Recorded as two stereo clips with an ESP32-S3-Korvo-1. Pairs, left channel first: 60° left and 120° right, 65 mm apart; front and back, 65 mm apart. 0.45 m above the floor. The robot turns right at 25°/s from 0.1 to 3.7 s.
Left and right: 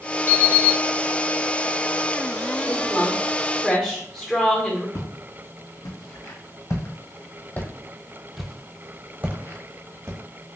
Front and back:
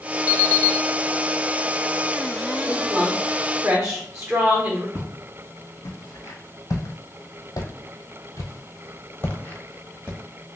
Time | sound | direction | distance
0.3 | an alarm clock | 10° left | 0.9 m
2.6 | a woman speaking | 95° left | 1.1 m
5.0 | footsteps | 50° left | 1.9 m